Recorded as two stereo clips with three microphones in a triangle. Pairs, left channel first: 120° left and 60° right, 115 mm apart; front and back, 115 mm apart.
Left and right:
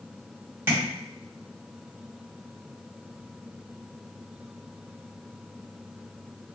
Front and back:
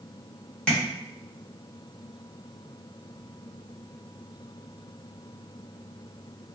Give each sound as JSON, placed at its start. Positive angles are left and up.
{"t": 0.7, "sound": "tapping", "azimuth_deg": -60, "distance_m": 1.3}